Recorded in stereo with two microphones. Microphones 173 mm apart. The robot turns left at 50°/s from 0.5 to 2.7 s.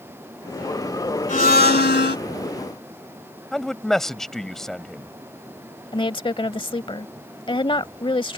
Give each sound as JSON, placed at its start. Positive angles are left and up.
{"t": 1.3, "sound": "a blender", "azimuth_deg": 130}
{"t": 3.5, "sound": "a man speaking", "side_deg": 5}
{"t": 5.9, "sound": "a woman speaking", "side_deg": 30}